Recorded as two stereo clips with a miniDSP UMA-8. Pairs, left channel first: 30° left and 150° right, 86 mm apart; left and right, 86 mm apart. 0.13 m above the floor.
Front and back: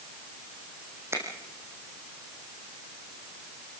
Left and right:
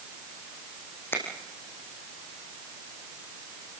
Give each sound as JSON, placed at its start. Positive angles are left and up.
{"t": 1.1, "sound": "a finger snap", "azimuth_deg": 150, "distance_m": 4.5}